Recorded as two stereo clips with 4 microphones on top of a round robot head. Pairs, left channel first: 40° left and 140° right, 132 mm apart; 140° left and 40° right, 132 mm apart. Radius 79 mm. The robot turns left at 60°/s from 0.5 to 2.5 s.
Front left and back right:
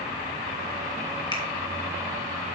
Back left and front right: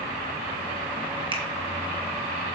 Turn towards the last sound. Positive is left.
turn(degrees=-75)